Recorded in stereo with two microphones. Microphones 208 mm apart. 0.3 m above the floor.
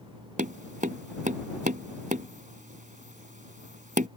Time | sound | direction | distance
0.4 | tapping | 40° right (ahead or behind) | ?